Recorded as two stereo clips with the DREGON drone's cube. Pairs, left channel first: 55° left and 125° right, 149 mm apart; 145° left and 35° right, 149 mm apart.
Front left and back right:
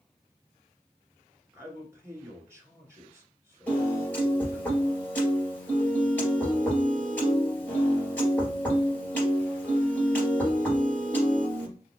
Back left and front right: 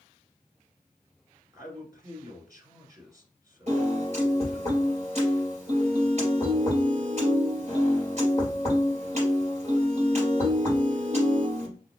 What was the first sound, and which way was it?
A man speaking, 70° right.